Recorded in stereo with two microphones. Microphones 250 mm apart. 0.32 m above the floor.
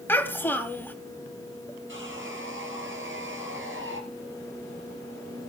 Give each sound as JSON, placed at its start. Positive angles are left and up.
{"t": 0.1, "sound": "a child speaking", "side_deg": 10, "distance_m": 1.7}
{"t": 1.9, "sound": "sawing", "side_deg": -50, "distance_m": 3.0}